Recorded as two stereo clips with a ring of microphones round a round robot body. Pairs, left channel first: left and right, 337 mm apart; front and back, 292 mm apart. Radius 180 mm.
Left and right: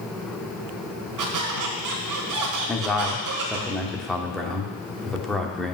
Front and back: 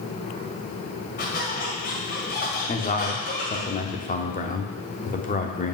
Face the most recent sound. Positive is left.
turn(degrees=0)